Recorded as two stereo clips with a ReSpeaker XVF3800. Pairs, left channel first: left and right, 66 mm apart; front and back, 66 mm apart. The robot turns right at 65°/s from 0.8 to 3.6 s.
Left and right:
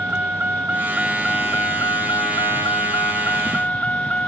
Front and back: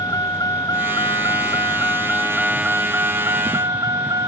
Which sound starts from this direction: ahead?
A vehicle, at 0.0 s.